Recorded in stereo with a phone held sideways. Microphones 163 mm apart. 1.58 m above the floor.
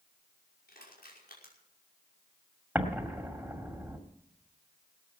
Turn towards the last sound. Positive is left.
turn(degrees=-10)  # may be behind; listen again after turning